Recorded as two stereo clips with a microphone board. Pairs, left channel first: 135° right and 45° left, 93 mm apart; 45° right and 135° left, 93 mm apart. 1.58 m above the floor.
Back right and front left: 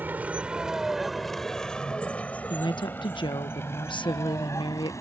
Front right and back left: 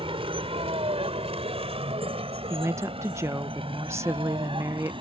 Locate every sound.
0.0 s a vehicle: 115° left; by 5.0 s 165° left
2.5 s a woman speaking: 165° right